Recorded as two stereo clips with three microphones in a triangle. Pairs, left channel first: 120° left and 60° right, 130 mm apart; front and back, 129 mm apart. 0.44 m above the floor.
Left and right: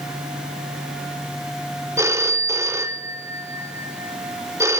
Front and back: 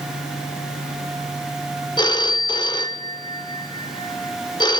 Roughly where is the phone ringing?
Ahead.